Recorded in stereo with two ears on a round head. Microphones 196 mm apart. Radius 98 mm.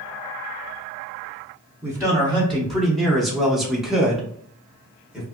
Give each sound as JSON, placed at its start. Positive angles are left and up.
{"t": 1.8, "sound": "a man speaking", "side_deg": 5, "distance_m": 0.9}